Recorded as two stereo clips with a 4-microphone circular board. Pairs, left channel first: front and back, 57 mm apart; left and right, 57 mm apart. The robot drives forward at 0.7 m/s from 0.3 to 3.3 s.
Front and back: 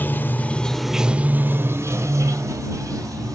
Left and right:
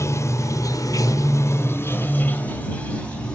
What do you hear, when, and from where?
0.0 s running water: 55° left, 0.7 m; by 3.4 s 160° left, 1.8 m